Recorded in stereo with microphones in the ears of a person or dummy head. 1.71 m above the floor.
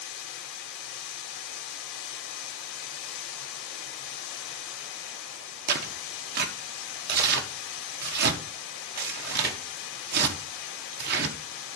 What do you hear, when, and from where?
0.0 s running water: 60° left (ahead or behind), 2.0 m
5.7 s tearing paper: 60° right (ahead or behind), 1.5 m